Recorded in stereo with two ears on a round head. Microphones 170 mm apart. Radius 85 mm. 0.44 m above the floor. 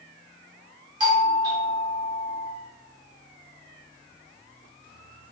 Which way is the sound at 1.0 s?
25° right (ahead or behind).